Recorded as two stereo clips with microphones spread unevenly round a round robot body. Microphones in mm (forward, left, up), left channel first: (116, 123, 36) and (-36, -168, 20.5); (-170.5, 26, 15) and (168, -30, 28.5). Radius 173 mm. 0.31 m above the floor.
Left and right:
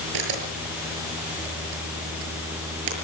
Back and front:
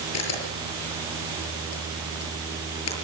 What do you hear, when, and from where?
0.1 s a camera shutter: 145° right, 6 m